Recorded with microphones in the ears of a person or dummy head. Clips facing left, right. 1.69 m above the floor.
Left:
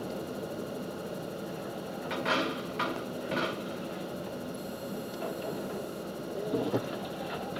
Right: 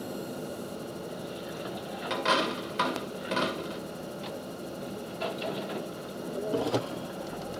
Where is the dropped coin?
55° right (ahead or behind), 2 m.